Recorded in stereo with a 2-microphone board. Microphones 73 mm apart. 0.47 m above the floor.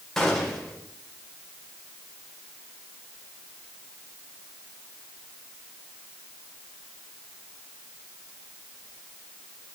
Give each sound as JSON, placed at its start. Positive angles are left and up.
{"t": 0.2, "sound": "a gunshot", "side_deg": 5, "distance_m": 1.9}